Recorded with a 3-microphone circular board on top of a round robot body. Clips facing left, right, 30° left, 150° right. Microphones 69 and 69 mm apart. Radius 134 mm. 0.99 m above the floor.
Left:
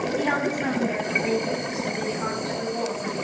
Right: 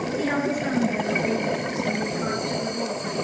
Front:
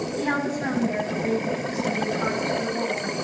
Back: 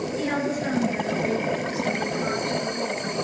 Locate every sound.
0.2 s a woman speaking: 75° left, 6.5 m